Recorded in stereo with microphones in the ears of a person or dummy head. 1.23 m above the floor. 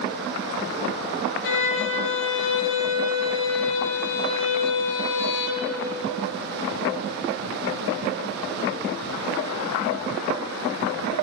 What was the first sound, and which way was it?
A violin, 60° left (ahead or behind).